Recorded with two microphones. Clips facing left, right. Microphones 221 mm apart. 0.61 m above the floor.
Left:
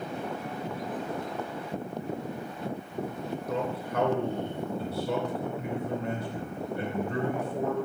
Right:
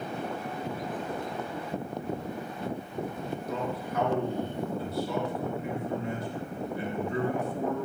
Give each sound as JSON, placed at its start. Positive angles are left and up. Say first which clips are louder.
{"t": 3.5, "sound": "a man speaking", "louder": "left 2 dB", "side_deg": 70, "distance_m": 2.5}